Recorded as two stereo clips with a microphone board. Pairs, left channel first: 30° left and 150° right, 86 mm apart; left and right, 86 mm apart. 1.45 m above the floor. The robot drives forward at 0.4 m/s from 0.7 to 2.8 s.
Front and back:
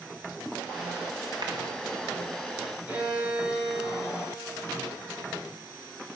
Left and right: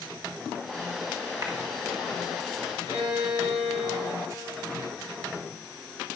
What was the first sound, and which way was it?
A clap, 135° right.